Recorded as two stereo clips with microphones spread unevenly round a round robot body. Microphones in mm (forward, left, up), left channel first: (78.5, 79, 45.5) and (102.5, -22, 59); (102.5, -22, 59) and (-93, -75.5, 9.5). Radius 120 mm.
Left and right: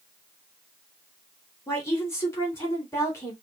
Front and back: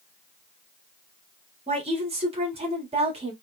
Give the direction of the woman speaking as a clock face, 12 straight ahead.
7 o'clock.